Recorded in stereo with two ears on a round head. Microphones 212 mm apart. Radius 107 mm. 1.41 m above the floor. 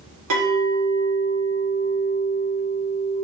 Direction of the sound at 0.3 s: 65° right (ahead or behind).